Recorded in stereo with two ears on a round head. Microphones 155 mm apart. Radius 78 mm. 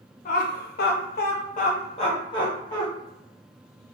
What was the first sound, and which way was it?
Laughter, 45° left (ahead or behind).